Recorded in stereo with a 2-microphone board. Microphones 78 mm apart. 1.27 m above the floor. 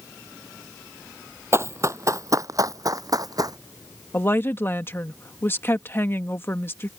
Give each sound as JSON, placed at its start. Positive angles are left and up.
{"t": 1.5, "sound": "running footsteps", "side_deg": -35}
{"t": 4.1, "sound": "a woman speaking", "side_deg": 30}